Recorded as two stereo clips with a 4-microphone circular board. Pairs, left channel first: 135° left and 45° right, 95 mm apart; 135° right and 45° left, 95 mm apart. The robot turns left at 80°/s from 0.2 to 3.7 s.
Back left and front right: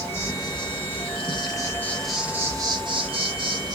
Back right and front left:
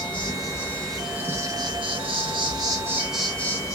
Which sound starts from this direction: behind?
An insect, at 0.0 s.